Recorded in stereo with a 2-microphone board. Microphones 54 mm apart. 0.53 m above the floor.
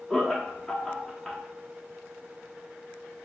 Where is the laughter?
10° left (ahead or behind), 0.6 m.